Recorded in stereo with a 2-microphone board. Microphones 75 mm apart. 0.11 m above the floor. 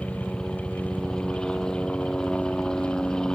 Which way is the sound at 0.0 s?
10° left (ahead or behind).